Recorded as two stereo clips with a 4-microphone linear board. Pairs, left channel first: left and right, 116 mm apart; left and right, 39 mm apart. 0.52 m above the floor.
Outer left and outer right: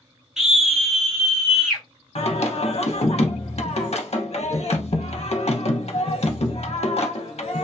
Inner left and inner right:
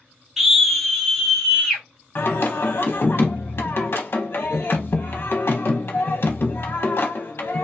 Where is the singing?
60° left (ahead or behind), 0.6 m.